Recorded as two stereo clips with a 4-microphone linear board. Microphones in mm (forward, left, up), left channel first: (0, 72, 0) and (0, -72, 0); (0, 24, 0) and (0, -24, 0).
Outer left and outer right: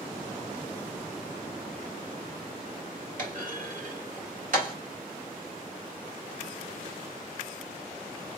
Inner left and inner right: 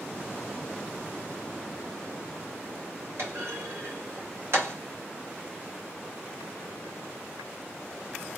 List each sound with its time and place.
3.2 s a clunk: 65° right (ahead or behind), 3 m